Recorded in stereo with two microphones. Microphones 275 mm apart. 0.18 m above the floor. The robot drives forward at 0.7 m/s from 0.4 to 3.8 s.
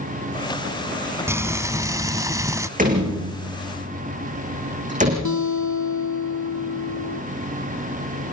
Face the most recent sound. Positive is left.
turn(degrees=80)